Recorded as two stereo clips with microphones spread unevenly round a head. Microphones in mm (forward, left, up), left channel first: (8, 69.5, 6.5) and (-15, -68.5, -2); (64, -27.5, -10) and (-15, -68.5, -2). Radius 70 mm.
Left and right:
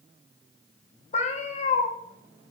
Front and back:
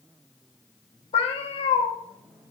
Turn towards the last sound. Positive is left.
turn(degrees=40)